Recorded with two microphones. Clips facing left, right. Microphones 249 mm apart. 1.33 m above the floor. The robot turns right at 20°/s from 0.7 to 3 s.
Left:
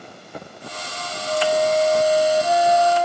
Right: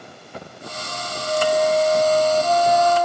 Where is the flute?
10° right, 2.5 m; by 3.1 s 25° left, 2.5 m.